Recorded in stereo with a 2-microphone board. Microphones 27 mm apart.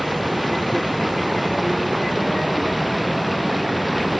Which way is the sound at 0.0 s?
Centre (ahead or behind).